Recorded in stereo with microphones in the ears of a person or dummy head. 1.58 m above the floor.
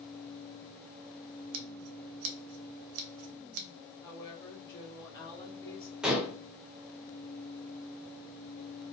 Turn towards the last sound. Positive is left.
turn(degrees=0)  # may be behind; listen again after turning